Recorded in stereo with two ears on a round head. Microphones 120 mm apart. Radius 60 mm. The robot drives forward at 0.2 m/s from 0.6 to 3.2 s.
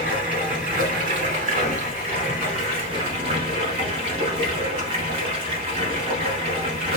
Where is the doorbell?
I don't hear a doorbell.